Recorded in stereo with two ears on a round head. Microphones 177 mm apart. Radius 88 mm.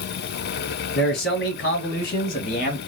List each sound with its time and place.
0.9 s a man speaking: 55° left (ahead or behind), 4 m; by 2.8 s 50° left (ahead or behind), 3 m